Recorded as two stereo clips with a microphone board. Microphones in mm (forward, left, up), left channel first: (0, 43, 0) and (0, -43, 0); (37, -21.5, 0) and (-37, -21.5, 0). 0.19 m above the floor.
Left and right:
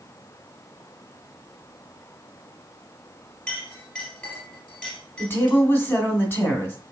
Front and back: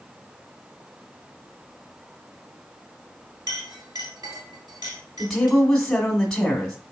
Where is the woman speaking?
75° left, 1.6 m.